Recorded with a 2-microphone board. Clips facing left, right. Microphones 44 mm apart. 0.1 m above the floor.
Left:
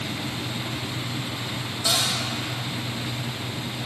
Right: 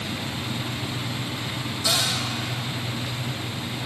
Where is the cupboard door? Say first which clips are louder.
Even; 15° left (ahead or behind), 2.5 m.